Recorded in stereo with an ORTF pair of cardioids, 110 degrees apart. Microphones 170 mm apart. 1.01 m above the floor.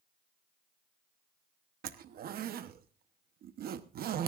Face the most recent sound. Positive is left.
turn(degrees=-55)